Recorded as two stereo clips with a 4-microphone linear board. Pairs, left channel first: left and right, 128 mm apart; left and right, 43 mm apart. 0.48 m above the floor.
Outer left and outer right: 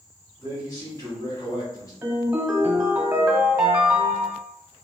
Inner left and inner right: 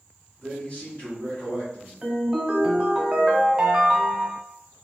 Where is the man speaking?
30° left (ahead or behind), 1.5 m.